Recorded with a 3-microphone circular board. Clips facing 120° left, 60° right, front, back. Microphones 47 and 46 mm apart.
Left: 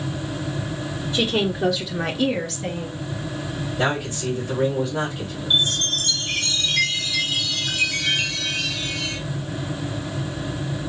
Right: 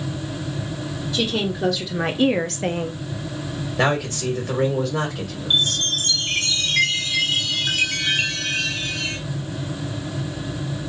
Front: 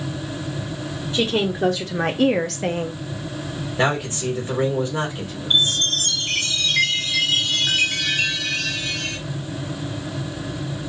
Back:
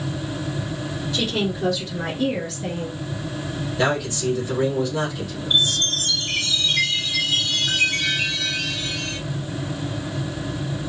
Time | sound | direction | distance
1.1 | a woman speaking | 55° left | 0.7 m
3.8 | a man speaking | 60° right | 1.7 m
5.5 | a chime | 15° right | 1.3 m